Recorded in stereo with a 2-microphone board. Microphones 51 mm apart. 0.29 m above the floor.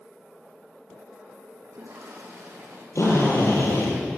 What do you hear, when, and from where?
1.6 s a toilet flushing: 70° right (ahead or behind), 5 m
3.0 s a drill: 65° left (ahead or behind), 8 m